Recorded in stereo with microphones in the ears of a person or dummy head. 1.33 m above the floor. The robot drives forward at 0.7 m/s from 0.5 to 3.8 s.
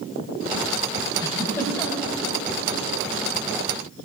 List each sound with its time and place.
1.2 s a giggle: 15° left (ahead or behind), 1.1 m; by 2.1 s 10° left (ahead or behind), 1.4 m